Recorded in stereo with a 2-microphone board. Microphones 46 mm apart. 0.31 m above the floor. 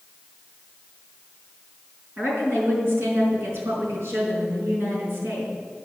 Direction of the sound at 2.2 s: 70° right (ahead or behind).